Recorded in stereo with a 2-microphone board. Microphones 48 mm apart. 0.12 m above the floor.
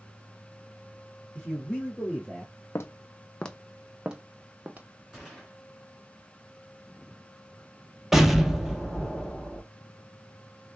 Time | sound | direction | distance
1.4 | a man speaking | 20° left (ahead or behind) | 4 m
2.8 | footsteps | 60° left (ahead or behind) | 0.6 m
5.1 | a gunshot | centre (ahead or behind) | 3.5 m
8.1 | an explosion | 5° right (ahead or behind) | 1.0 m